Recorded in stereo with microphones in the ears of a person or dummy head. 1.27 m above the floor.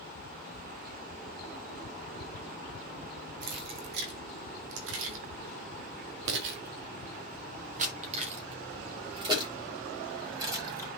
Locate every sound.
3.4 s keys jangling: 50° right (ahead or behind), 1.8 m; by 10.9 s 20° right (ahead or behind), 3 m